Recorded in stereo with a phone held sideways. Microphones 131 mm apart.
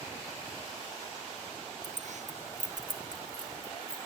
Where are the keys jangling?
60° right (ahead or behind); by 4.1 s 80° right.